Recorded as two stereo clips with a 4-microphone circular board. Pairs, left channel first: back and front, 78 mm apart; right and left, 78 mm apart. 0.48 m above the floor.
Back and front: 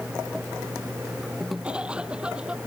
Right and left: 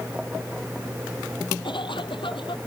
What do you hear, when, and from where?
1.6 s a cough: 80° right